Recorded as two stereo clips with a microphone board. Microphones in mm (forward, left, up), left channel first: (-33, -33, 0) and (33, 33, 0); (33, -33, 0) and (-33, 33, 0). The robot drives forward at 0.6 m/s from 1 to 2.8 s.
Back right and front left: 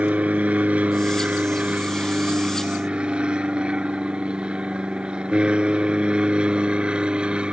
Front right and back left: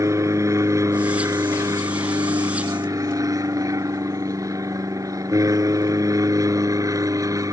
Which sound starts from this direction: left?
An aircraft, at 0.0 s.